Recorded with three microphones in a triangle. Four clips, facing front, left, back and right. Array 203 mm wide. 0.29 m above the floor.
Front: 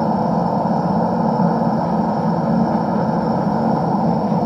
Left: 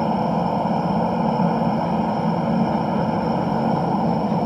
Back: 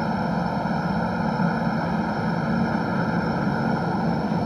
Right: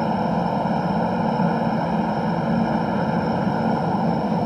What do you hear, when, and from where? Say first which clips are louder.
0.0 s a helicopter: left 1 dB, front 7 dB; straight ahead